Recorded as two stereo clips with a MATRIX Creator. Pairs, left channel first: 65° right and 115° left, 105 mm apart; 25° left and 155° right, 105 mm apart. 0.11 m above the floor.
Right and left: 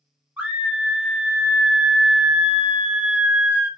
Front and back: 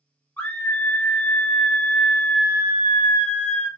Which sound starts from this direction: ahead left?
A scream, at 0.4 s.